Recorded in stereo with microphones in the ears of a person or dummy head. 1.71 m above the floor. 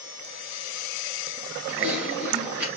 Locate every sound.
1.7 s typing on a keyboard: 5° right (ahead or behind), 2.5 m